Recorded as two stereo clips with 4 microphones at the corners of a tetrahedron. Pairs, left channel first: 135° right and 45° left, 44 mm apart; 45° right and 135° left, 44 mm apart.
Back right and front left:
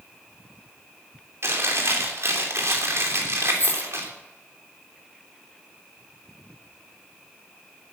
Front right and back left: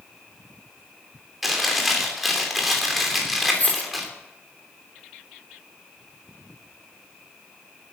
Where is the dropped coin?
100° right, 4.5 m.